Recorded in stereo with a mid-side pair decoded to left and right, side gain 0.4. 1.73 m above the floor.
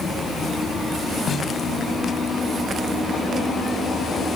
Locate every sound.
1.3 s a snare drum: 45° left, 4.5 m